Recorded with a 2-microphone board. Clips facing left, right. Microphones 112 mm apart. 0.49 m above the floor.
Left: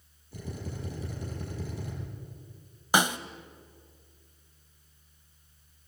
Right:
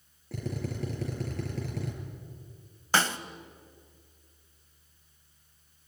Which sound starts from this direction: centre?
A snare drum, at 2.9 s.